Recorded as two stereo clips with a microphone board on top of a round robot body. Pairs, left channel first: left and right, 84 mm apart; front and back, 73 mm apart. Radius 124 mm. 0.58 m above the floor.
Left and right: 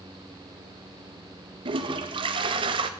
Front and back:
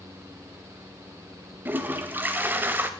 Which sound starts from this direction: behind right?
A toilet flushing, at 1.6 s.